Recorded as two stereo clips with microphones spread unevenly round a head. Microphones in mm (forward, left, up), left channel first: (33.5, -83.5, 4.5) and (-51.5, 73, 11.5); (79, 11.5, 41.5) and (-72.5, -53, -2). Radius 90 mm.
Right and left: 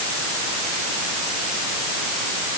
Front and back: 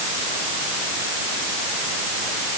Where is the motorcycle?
I don't hear a motorcycle.